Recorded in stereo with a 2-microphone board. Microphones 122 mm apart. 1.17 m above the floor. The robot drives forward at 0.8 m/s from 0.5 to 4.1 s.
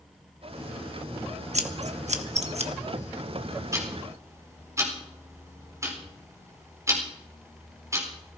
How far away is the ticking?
About 4 m.